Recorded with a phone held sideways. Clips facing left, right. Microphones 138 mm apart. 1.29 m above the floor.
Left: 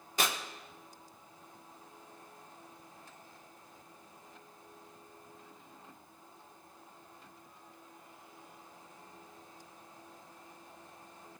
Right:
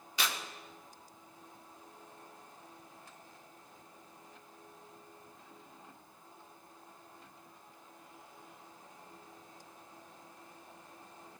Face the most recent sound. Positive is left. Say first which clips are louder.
# left 3 dB
turn(degrees=50)  # may be behind; listen again after turning